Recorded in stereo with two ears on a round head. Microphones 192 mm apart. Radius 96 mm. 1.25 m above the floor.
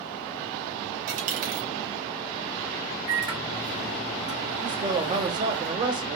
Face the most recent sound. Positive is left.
turn(degrees=-20)  # may be behind; listen again after turning